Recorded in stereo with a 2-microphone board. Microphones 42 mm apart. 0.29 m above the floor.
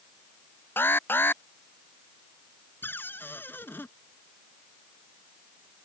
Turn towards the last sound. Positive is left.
turn(degrees=60)  # may be behind; listen again after turning